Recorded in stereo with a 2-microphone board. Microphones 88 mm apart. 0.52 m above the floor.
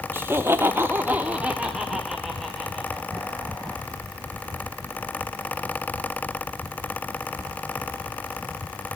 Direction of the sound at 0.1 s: 25° right (ahead or behind).